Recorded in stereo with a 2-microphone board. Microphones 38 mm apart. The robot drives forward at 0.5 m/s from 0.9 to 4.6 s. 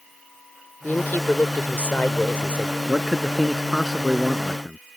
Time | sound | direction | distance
0.8 | a woman speaking | 50° left (ahead or behind) | ?
2.9 | a man speaking | 5° right (ahead or behind) | ?